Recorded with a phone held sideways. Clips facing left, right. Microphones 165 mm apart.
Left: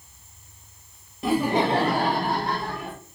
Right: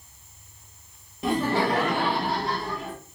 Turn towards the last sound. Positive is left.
turn(degrees=60)  # may be behind; listen again after turning